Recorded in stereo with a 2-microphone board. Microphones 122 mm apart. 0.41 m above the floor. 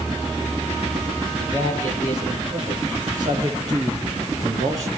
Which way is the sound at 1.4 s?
40° right (ahead or behind).